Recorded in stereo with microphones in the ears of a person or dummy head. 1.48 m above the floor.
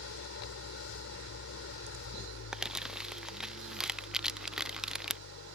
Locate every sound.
0.0 s an engine running: 70° left (ahead or behind)
2.5 s crumpling: 5° right (ahead or behind)